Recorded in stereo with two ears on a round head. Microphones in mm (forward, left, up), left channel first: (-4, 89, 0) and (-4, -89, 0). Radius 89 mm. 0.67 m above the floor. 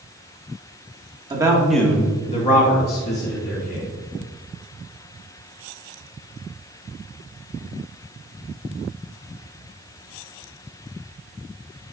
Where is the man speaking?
20° right (ahead or behind), 1.5 m; by 3.9 s 70° left (ahead or behind), 3 m.